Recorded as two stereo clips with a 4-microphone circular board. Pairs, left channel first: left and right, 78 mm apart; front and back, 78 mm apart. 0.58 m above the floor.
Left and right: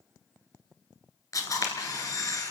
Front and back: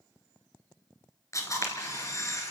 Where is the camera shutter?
50° left, 2.5 m.